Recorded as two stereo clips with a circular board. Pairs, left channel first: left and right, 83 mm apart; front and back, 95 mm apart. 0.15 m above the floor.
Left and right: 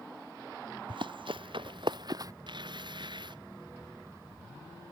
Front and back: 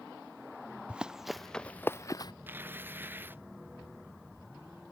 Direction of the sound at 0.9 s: 100° right.